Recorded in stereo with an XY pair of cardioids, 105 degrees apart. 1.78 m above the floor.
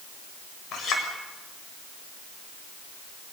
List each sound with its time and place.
0.7 s a clink: 65° left, 7 m